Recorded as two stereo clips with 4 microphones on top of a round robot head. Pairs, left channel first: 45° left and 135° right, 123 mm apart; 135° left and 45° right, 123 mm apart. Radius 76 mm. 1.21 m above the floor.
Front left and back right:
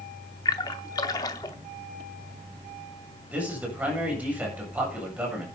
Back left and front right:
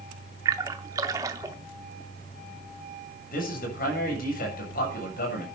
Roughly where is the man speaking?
Behind left.